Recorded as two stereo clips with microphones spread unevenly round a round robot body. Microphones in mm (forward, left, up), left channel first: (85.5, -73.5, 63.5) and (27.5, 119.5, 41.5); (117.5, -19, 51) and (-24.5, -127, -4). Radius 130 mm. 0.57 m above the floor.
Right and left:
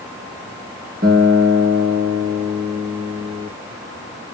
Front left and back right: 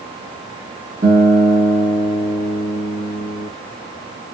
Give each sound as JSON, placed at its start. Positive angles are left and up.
{"t": 1.0, "sound": "a guitar", "azimuth_deg": 160, "distance_m": 1.1}